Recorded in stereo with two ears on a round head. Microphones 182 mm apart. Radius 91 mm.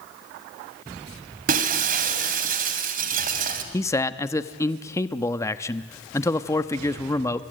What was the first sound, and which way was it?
Breaking glass, 45° right (ahead or behind).